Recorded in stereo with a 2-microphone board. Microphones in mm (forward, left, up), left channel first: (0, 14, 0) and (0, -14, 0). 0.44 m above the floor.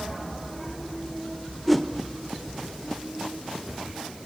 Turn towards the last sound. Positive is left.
turn(degrees=5)  # may be behind; listen again after turning